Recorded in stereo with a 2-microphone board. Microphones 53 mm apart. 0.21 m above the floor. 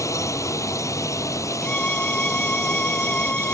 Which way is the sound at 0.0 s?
75° left (ahead or behind).